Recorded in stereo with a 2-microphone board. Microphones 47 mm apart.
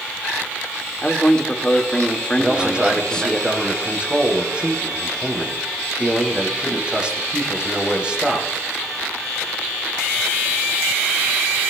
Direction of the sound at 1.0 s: 15° left (ahead or behind).